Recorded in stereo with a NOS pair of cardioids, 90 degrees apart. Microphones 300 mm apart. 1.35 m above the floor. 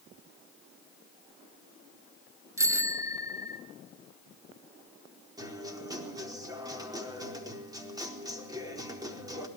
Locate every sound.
2.6 s a bicycle bell: 10° right, 3 m
5.4 s a guitar: 10° right, 4.5 m